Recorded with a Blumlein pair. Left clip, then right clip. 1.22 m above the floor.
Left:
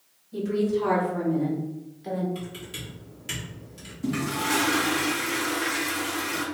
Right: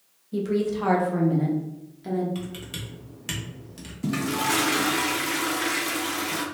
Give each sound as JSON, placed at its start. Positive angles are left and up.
{"t": 0.3, "sound": "a woman speaking", "azimuth_deg": -70, "distance_m": 1.1}
{"t": 2.4, "sound": "typing on a keyboard", "azimuth_deg": -25, "distance_m": 1.0}
{"t": 4.0, "sound": "a toilet flushing", "azimuth_deg": -15, "distance_m": 0.5}